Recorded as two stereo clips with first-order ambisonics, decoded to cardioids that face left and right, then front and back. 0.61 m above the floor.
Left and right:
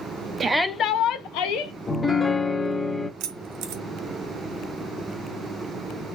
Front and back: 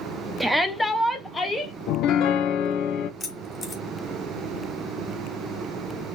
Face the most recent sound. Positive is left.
turn(degrees=-70)